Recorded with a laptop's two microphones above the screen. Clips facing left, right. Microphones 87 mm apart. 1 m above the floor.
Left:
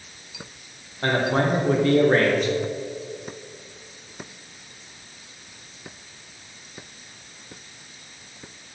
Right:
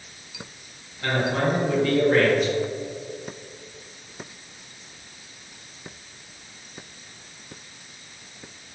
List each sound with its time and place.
1.0 s a man speaking: 40° left (ahead or behind), 1.1 m